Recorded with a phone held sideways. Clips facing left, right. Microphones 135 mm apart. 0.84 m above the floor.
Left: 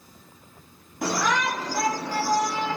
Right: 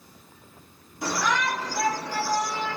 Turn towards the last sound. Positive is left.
turn(degrees=50)  # may be behind; listen again after turning